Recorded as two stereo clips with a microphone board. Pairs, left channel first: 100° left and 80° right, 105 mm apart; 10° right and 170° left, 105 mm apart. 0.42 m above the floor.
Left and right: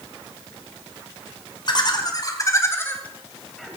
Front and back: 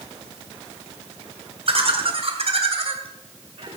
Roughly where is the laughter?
Behind left.